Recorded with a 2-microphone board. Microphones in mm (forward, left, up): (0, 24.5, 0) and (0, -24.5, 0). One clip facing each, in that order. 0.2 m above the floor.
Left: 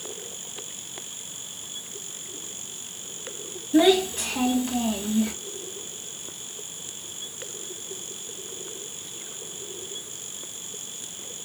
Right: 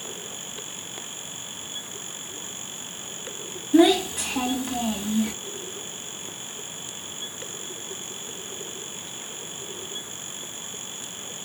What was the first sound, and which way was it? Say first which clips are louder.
A child speaking: right 1 dB; 10° right (ahead or behind).